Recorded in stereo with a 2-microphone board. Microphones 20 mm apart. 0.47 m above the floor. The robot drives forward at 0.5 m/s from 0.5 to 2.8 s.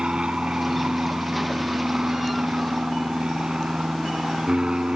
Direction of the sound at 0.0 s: 45° right (ahead or behind).